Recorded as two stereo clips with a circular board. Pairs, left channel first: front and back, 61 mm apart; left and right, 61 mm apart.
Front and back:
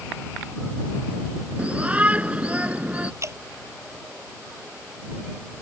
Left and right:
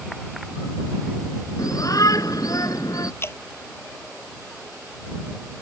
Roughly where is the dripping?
Behind left.